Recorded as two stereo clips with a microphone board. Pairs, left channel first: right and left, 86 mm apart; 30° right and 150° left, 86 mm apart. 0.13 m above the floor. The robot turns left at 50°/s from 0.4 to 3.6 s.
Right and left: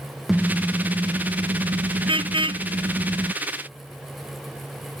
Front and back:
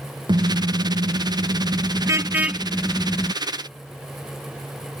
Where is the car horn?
Straight behind; by 3.3 s 30° left.